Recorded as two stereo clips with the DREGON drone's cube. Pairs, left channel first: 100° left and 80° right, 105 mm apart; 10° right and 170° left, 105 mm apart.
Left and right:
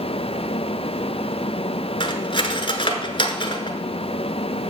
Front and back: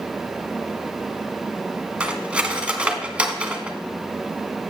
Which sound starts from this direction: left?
Cutlery clinking, at 2.0 s.